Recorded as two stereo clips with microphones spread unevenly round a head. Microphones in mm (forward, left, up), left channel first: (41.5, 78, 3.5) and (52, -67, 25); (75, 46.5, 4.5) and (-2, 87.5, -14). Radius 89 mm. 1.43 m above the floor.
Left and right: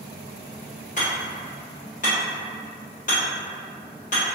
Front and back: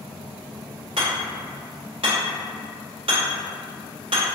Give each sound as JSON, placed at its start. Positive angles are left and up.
{"t": 1.0, "sound": "hammering", "azimuth_deg": 140, "distance_m": 1.2}